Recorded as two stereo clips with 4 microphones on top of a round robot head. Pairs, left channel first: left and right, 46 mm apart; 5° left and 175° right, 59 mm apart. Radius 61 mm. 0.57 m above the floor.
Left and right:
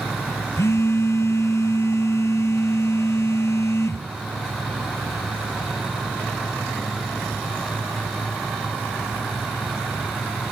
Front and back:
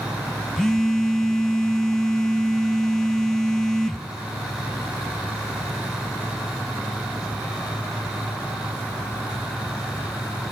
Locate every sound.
0.6 s a phone buzzing: 85° left, 1.2 m